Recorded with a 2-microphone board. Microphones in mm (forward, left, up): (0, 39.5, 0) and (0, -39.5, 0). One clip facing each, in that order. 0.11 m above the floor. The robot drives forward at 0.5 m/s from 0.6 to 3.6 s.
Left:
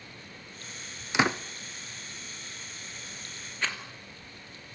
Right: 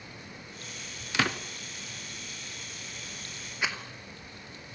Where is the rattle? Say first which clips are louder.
Right 1 dB; 10° right (ahead or behind), 2.5 m.